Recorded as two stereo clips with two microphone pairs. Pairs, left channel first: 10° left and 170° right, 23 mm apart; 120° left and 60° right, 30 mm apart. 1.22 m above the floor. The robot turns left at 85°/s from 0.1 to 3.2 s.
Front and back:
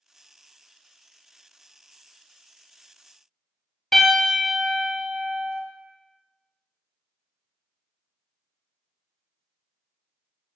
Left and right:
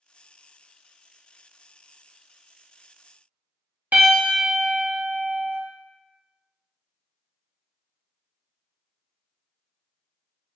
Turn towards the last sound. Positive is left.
turn(degrees=-65)